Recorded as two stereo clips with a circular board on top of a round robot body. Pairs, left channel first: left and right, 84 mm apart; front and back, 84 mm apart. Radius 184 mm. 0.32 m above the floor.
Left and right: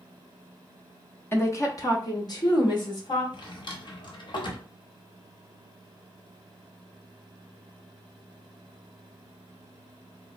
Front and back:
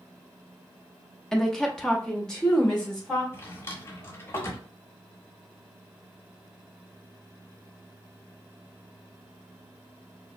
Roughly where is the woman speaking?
Left.